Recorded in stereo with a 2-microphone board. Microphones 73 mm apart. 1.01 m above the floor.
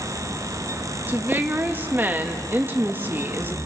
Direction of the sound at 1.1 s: 25° right (ahead or behind).